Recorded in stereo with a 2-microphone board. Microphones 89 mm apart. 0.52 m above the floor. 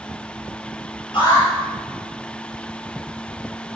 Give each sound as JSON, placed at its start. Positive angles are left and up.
{"t": 1.1, "sound": "an alarm", "side_deg": 75, "distance_m": 7.5}